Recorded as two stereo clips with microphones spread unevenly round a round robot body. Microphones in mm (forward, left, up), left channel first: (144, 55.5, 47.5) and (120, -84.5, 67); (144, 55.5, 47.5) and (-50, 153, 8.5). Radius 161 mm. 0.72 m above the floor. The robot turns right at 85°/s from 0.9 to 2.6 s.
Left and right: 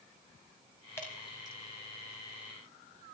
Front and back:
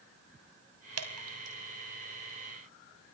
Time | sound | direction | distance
1.0 | dripping | 160° left | 2.5 m